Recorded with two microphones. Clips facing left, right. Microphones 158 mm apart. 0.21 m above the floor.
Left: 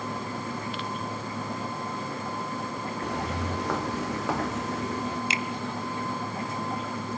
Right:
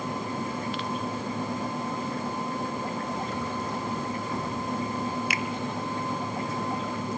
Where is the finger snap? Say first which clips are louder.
Even; 25° left (ahead or behind), 1.1 m.